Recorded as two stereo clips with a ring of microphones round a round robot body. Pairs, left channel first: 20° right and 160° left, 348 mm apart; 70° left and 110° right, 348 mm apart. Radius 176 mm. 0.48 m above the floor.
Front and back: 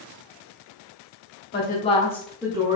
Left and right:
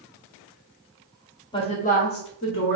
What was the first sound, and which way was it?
A woman speaking, 5° left.